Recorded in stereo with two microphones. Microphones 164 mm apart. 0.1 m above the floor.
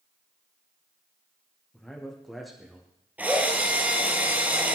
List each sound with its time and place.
1.7 s a man speaking: 5° left (ahead or behind), 5 m; by 2.9 s 5° right (ahead or behind), 5.5 m
3.2 s a drill: 10° right (ahead or behind), 3 m